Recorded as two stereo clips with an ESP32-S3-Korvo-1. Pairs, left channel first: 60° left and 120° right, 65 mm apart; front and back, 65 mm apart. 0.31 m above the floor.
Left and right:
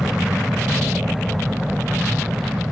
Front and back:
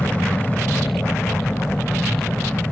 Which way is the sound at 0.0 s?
45° right.